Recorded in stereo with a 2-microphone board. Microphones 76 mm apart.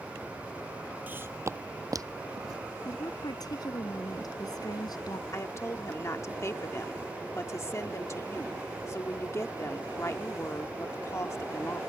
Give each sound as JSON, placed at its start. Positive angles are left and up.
{"t": 1.1, "sound": "footsteps", "side_deg": -25}
{"t": 2.9, "sound": "a woman speaking", "side_deg": 60}
{"t": 5.3, "sound": "a woman speaking", "side_deg": 40}